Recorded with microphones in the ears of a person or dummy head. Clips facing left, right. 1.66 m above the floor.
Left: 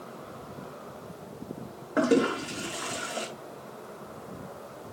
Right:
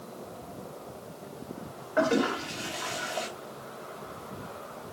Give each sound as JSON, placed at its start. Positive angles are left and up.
{"t": 2.0, "sound": "a toilet flushing", "side_deg": 45, "distance_m": 3.0}